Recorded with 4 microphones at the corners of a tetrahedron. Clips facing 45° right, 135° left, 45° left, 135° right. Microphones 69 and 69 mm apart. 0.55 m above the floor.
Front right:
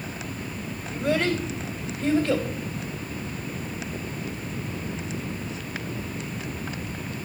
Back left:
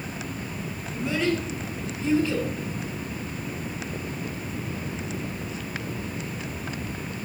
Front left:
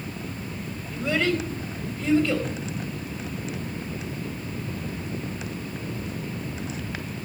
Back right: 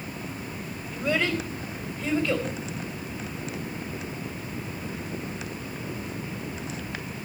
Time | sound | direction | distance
0.9 | a child speaking | 45° right | 2.5 m